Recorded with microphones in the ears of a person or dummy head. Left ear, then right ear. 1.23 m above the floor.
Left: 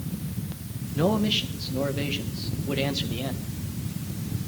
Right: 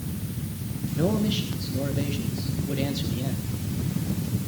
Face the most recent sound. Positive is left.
turn(degrees=30)  # may be behind; listen again after turning